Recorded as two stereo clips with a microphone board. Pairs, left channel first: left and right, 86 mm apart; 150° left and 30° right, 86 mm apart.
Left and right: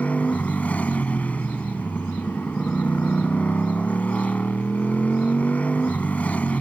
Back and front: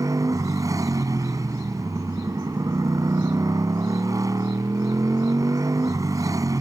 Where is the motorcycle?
15° left.